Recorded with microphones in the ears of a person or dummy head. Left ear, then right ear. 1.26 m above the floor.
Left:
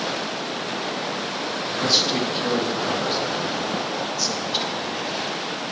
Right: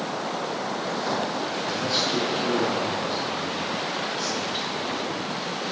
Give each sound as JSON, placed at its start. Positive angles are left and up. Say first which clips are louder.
{"t": 1.6, "sound": "a man speaking", "louder": "left 6 dB", "side_deg": 50, "distance_m": 1.9}